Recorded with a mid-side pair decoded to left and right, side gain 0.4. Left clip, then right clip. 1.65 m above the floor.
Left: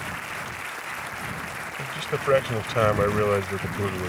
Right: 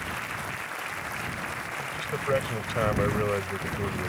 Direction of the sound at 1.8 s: 50° left.